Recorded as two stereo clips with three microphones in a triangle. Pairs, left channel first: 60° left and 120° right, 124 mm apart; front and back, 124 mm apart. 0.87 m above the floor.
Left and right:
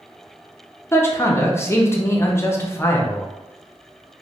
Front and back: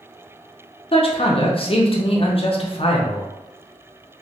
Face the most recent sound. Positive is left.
turn(degrees=-5)